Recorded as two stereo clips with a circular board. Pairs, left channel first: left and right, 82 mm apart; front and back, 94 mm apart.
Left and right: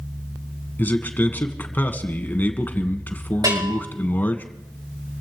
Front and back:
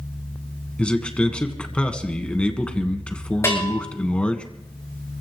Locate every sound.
0.8 s a man speaking: 65° left, 1.7 m
3.4 s a bell: 55° right, 6 m